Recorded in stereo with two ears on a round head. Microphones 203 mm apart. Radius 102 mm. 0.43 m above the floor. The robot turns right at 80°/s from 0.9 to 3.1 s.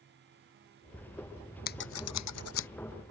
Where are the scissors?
40° left (ahead or behind); by 2.7 s 55° left (ahead or behind).